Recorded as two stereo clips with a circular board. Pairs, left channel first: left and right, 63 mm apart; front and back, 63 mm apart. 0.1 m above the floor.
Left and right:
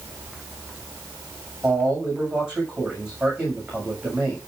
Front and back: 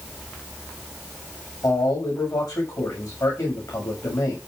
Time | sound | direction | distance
1.6 | a man speaking | 15° right | 7 m